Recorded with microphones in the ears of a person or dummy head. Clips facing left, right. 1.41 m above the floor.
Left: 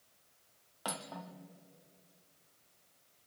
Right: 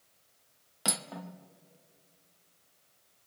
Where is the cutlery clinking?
30° right (ahead or behind), 0.6 m.